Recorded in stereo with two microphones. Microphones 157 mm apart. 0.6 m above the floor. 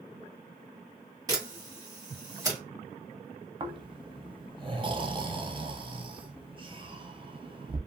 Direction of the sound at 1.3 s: 20° right (ahead or behind).